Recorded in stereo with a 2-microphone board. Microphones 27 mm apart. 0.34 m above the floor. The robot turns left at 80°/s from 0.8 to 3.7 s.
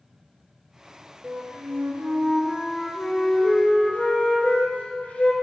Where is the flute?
55° right, 1.7 m; by 5.3 s 110° left, 1.7 m.